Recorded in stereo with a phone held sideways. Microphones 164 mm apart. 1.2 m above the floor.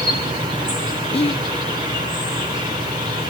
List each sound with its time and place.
0.0 s an insect: 30° right (ahead or behind), 3.5 m
1.1 s whispering: 35° left (ahead or behind), 0.5 m